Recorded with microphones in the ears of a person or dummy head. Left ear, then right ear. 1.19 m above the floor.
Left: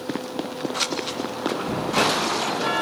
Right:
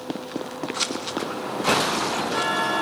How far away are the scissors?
About 1.5 m.